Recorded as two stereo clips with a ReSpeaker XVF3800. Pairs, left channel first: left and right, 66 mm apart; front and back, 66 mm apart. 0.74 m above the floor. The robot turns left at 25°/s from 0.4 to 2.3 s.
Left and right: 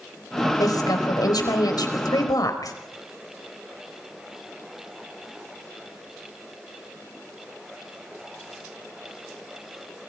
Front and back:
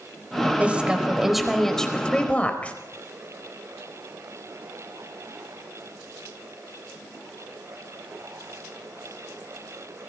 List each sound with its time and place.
0.6 s a woman speaking: 110° left, 4 m; by 2.7 s 70° left, 4 m